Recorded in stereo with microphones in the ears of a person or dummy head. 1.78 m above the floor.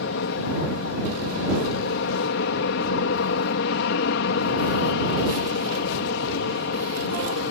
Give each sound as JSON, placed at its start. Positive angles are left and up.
{"t": 0.0, "sound": "an aircraft", "side_deg": 65}